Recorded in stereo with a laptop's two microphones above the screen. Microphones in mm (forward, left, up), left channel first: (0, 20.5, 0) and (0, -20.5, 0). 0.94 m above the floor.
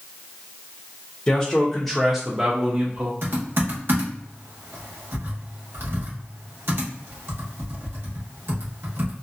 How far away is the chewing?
I don't hear chewing.